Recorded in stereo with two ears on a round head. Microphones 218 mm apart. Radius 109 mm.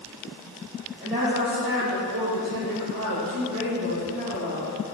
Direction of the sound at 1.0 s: 25° right (ahead or behind).